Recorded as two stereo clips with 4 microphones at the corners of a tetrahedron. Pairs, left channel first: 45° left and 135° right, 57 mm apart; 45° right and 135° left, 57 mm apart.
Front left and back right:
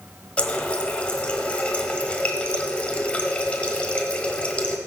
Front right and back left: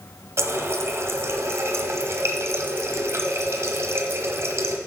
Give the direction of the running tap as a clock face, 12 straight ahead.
8 o'clock.